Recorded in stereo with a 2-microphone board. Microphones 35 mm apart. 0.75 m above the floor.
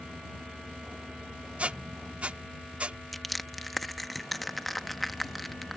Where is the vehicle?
15° right (ahead or behind).